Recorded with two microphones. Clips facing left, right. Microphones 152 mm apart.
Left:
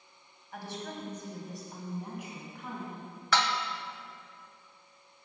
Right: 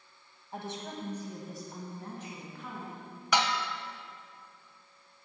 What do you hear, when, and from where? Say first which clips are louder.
0.5 s a woman speaking: right 1 dB; 25° right (ahead or behind), 1.6 m; by 3.0 s 20° left (ahead or behind), 2.5 m
3.3 s dishes clattering: right 1 dB; 15° right (ahead or behind), 0.6 m